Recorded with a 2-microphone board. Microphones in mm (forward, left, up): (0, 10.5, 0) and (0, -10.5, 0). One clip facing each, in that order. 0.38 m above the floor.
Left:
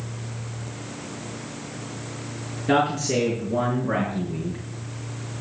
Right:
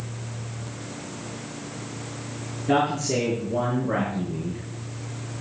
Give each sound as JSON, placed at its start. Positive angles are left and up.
{"t": 2.7, "sound": "a man speaking", "side_deg": 30, "distance_m": 4.5}